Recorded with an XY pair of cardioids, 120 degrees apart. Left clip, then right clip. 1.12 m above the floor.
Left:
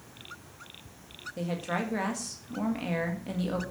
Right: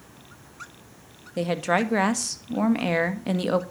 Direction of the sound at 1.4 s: 55° right.